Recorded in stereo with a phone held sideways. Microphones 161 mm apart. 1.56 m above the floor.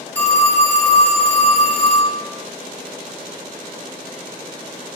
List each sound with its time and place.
0.1 s a phone ringing: 10° left (ahead or behind), 0.7 m